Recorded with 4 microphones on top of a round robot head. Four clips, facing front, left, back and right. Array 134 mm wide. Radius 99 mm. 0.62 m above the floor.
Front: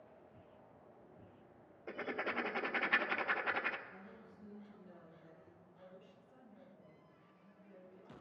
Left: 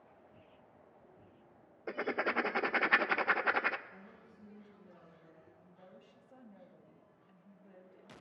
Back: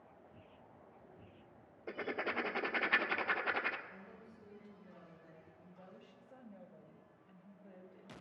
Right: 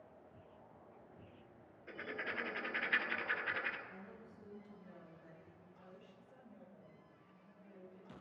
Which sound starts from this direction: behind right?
A woman speaking, at 3.9 s.